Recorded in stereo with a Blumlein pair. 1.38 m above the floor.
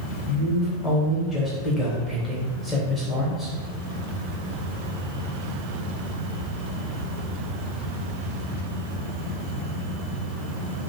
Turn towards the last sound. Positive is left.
turn(degrees=5)